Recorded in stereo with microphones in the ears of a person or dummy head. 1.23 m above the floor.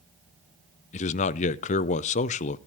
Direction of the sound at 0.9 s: 40° left (ahead or behind).